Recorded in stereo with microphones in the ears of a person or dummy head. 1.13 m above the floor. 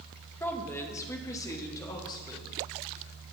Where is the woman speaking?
10° left (ahead or behind), 1.2 m; by 2.5 s 20° left (ahead or behind), 2.5 m.